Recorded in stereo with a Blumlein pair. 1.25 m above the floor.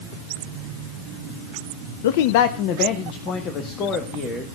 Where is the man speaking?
60° left, 0.5 m; by 4.5 s 25° left, 1.9 m.